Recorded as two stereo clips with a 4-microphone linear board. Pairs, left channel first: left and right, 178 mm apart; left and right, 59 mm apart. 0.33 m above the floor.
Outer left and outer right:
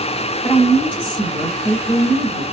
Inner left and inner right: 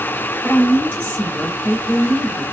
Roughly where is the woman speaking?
Left.